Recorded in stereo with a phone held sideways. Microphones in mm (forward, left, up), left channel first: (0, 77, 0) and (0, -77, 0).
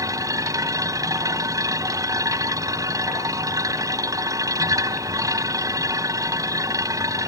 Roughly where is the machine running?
Right.